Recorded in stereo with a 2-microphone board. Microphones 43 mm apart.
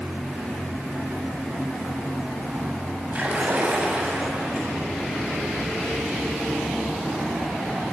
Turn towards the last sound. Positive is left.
turn(degrees=-40)  # may be behind; listen again after turning